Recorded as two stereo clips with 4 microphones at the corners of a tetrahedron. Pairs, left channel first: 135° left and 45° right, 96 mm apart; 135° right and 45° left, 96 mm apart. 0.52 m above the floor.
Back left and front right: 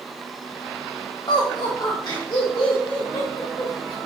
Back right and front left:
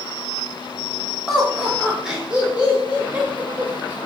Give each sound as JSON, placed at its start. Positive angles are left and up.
{"t": 1.3, "sound": "laughter", "azimuth_deg": 140, "distance_m": 1.3}